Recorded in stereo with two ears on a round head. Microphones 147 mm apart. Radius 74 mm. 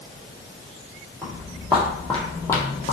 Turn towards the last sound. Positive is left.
turn(degrees=35)  # may be behind; listen again after turning